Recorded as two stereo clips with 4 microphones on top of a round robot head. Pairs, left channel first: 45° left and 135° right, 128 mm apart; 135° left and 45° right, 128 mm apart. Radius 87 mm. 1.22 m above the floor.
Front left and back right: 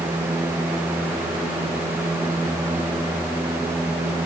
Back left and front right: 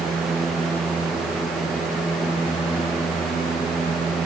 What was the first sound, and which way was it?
Only background noise.